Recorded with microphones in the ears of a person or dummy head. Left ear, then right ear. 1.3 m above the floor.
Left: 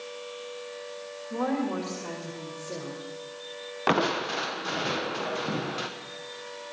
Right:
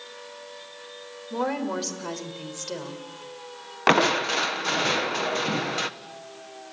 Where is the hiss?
No hiss in this recording.